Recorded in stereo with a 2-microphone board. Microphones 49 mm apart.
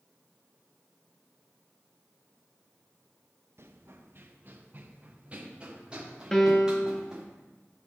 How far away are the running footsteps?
About 1.3 m.